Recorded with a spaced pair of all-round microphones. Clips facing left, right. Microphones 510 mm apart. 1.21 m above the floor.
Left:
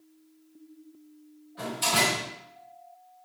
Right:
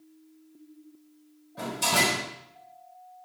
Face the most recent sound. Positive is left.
turn(degrees=-65)  # may be behind; listen again after turning